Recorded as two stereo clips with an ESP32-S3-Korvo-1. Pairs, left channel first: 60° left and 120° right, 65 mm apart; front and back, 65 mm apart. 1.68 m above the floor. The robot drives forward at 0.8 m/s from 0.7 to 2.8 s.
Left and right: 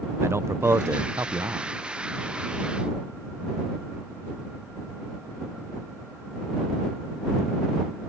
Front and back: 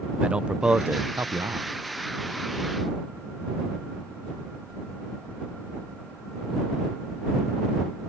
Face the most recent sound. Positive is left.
turn(degrees=-170)